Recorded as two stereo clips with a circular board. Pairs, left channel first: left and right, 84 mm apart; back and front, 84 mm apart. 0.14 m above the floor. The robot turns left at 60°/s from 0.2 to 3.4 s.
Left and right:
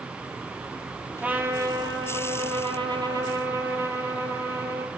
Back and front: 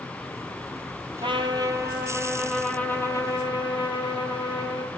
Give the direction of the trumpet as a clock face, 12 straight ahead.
12 o'clock.